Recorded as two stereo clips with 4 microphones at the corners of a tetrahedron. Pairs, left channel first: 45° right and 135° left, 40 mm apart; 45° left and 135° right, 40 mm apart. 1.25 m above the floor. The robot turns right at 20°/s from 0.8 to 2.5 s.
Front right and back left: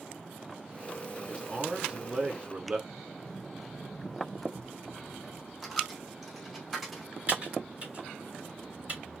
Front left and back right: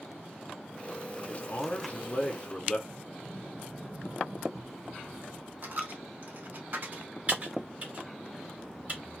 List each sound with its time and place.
1.3 s a man speaking: 65° left, 0.7 m; by 2.8 s 90° left, 0.7 m
2.9 s a sliding door: 120° right, 1.0 m
5.6 s a dropped coin: 140° right, 1.0 m
7.3 s typing on a keyboard: straight behind, 1.8 m